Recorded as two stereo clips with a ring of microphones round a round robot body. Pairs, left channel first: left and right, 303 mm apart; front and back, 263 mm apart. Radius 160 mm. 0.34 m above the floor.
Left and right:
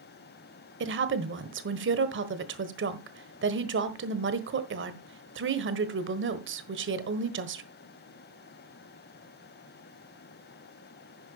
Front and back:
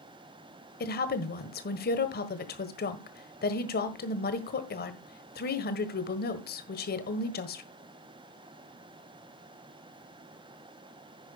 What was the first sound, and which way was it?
A woman speaking, 45° right.